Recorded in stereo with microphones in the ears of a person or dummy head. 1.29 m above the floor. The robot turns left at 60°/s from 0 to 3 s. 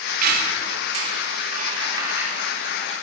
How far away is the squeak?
About 1.8 m.